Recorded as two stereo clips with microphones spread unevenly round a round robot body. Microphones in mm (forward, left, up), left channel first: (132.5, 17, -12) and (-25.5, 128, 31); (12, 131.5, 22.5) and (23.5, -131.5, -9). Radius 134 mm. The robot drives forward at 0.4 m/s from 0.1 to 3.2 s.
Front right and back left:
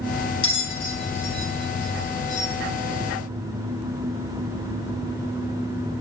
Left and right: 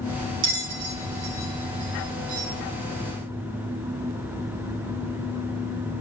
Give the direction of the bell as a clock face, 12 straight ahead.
2 o'clock.